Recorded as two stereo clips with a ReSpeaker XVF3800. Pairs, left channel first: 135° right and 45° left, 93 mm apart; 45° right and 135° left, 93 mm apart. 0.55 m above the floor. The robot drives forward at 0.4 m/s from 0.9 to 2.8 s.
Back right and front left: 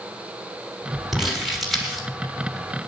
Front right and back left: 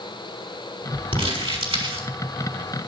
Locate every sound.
1.1 s crumpling: 135° left, 5.5 m